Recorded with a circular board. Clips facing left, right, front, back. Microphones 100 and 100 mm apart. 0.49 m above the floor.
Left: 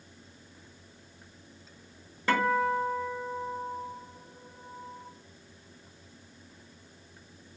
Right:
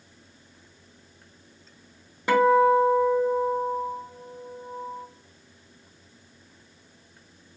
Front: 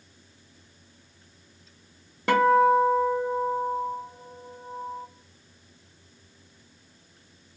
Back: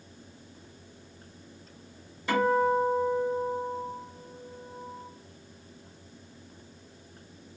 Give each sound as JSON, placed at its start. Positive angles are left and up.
{"t": 2.3, "sound": "a guitar", "azimuth_deg": -20, "distance_m": 0.7}